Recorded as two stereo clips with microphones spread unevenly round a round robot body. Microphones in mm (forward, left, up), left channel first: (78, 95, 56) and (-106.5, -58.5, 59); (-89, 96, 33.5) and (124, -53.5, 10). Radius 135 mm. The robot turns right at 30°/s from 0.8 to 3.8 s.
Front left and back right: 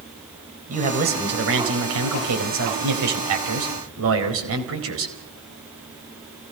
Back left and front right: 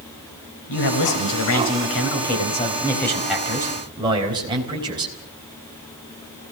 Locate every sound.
0.7 s a man speaking: 160° left, 4.5 m; by 5.1 s 110° right, 4.5 m